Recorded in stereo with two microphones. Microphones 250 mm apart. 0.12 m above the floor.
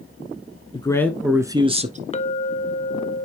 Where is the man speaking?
20° left (ahead or behind), 1.1 m; by 2.0 s 30° right (ahead or behind), 1.4 m.